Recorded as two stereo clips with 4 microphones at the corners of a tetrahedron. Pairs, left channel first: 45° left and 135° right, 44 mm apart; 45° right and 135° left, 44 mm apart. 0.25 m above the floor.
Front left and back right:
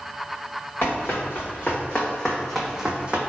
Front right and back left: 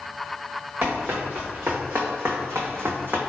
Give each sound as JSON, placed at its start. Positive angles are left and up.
{"t": 0.8, "sound": "running footsteps", "azimuth_deg": 85, "distance_m": 1.6}